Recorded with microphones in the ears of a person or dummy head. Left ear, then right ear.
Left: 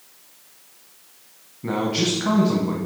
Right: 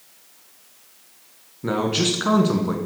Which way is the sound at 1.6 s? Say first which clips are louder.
Right 1 dB; 25° right (ahead or behind).